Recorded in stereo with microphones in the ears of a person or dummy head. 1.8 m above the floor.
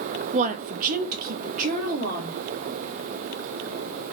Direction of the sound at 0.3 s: 35° right (ahead or behind).